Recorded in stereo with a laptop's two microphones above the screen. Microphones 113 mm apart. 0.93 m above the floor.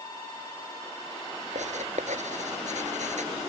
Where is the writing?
90° right.